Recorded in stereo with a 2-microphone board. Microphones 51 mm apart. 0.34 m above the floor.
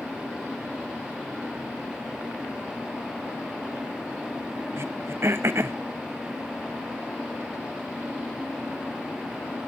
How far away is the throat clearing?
About 0.7 m.